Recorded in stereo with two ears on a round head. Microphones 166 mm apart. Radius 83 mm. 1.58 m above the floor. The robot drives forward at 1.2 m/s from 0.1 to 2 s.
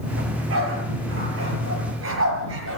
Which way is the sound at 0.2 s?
75° right (ahead or behind).